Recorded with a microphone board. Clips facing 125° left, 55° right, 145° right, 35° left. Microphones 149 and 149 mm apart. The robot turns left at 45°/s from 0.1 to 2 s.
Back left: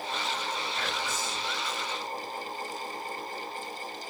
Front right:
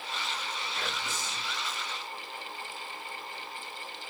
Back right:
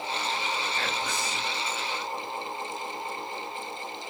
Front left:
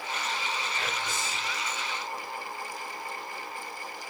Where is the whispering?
105° right, 6 m; by 1.6 s 145° right, 6 m.